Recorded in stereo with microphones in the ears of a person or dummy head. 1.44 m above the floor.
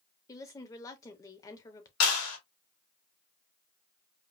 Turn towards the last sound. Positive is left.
turn(degrees=90)